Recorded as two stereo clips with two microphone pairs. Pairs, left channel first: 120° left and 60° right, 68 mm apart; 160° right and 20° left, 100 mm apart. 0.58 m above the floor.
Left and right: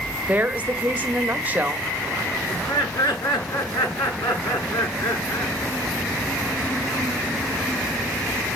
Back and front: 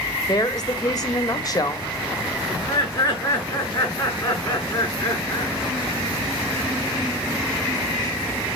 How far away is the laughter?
About 6.5 m.